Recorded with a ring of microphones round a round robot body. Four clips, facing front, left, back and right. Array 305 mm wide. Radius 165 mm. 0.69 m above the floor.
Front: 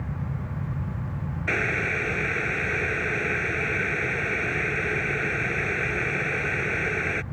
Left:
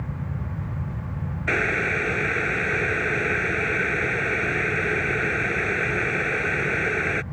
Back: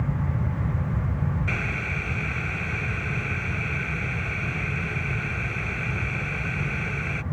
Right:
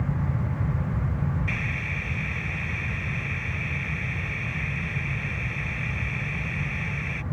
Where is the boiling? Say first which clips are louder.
Left 9 dB, front 4 dB; 70° left.